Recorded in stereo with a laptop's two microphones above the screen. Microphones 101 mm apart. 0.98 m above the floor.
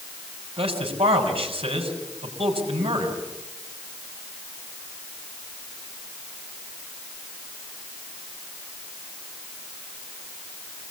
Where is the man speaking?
65° right (ahead or behind), 6.5 m.